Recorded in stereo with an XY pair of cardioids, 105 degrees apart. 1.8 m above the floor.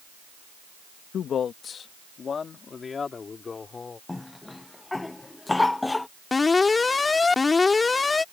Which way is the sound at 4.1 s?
15° left.